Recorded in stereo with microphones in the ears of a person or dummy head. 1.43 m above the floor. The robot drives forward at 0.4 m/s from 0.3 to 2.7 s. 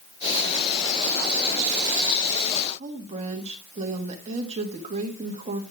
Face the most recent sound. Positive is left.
turn(degrees=-40)  # may be behind; listen again after turning